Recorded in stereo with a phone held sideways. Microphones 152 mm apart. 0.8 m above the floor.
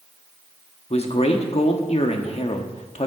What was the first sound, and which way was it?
A man speaking, 45° left (ahead or behind).